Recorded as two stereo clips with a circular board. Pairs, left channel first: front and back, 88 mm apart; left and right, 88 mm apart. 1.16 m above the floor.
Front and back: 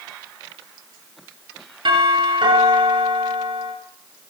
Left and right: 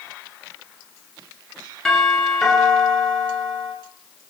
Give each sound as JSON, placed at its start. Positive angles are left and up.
{"t": 1.9, "sound": "a doorbell", "azimuth_deg": 175, "distance_m": 7.0}